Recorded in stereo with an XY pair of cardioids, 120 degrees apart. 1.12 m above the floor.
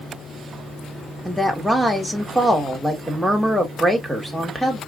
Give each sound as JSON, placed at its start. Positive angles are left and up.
{"t": 1.2, "sound": "a woman speaking", "azimuth_deg": -5, "distance_m": 1.7}